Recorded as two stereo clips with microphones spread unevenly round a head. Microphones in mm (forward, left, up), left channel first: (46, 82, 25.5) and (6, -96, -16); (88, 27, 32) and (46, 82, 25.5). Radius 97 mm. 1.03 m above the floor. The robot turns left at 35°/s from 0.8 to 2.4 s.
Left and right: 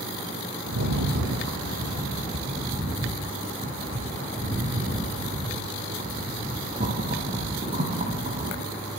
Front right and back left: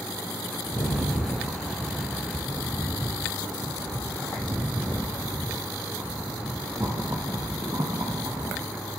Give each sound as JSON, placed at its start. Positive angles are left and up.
{"t": 0.7, "sound": "a rattle", "azimuth_deg": -110, "distance_m": 5.5}